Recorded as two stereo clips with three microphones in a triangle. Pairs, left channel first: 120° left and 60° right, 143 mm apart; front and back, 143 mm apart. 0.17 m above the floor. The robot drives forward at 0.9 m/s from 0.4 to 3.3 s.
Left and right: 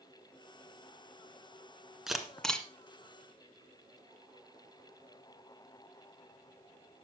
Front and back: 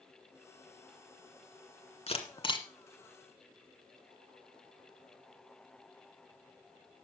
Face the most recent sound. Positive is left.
turn(degrees=70)